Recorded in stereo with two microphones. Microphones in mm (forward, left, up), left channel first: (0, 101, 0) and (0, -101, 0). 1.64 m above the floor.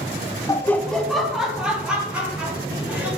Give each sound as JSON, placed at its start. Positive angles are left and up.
{"t": 0.5, "sound": "laughter", "side_deg": 15, "distance_m": 0.5}